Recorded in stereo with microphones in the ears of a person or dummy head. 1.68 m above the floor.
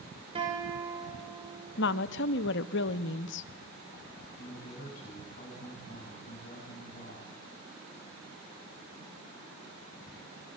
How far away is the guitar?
About 5.5 m.